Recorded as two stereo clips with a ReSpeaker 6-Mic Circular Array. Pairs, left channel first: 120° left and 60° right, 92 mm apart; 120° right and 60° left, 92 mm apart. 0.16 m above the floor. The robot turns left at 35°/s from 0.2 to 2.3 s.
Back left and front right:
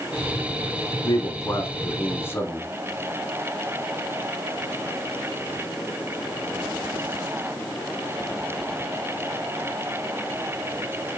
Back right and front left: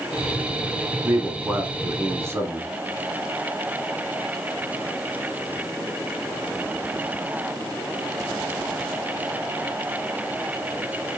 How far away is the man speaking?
About 1.2 m.